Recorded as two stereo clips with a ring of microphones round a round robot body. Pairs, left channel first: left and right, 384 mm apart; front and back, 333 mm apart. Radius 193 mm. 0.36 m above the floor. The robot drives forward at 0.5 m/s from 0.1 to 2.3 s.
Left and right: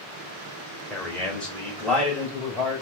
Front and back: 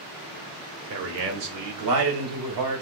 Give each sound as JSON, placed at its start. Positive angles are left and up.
{"t": 0.9, "sound": "a man speaking", "azimuth_deg": 175, "distance_m": 1.3}